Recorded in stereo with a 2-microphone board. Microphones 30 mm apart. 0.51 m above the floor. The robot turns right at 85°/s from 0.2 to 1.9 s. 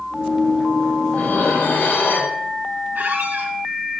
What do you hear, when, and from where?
1.1 s dishes clattering: 45° left, 4 m; by 2.4 s 110° left, 4 m
3.0 s a squeak: 55° right (ahead or behind), 4 m